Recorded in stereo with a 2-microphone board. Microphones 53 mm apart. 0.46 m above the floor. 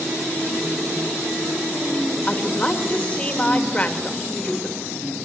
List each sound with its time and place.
2.3 s a woman speaking: 25° left (ahead or behind), 1.9 m